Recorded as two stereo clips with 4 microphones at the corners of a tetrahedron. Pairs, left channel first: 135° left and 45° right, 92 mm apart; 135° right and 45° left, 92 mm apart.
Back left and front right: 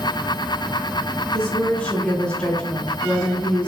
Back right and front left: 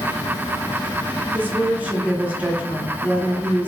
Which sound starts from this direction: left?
A woman speaking, at 1.3 s.